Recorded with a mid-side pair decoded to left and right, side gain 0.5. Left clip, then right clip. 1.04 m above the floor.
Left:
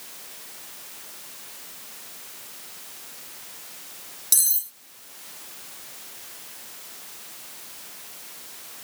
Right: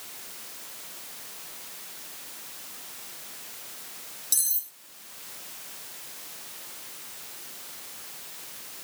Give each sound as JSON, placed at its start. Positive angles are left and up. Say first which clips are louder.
{"t": 4.3, "sound": "cutlery clinking", "louder": "left 5 dB", "azimuth_deg": 35, "distance_m": 0.8}